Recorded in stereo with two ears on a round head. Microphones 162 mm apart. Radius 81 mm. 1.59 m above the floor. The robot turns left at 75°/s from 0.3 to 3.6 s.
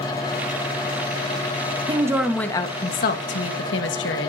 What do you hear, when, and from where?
1.9 s a woman speaking: 150° right, 1.6 m; by 4.3 s 80° left, 1.6 m